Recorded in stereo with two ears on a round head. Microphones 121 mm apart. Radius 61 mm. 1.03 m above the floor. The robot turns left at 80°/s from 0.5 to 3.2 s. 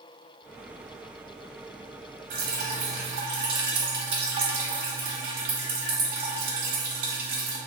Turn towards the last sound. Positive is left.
turn(degrees=-40)  # may be behind; listen again after turning